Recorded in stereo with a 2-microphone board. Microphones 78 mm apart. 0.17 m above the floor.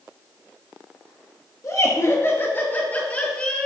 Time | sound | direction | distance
1.6 | laughter | 45° left (ahead or behind) | 3 m